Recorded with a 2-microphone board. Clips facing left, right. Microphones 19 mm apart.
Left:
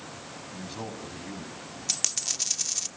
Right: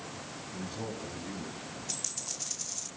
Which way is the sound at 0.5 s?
50° left (ahead or behind).